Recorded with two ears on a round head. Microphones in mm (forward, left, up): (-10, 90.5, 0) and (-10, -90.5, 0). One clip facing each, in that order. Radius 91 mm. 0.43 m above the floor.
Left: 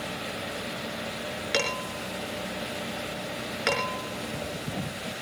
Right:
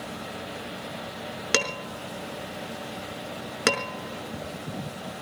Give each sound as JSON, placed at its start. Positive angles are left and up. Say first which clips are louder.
{"t": 1.5, "sound": "dishes clattering", "louder": "right 1 dB", "side_deg": -65, "distance_m": 4.0}